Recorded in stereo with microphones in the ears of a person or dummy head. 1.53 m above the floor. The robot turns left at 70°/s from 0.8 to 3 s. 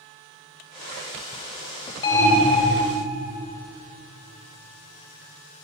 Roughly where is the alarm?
Ahead left.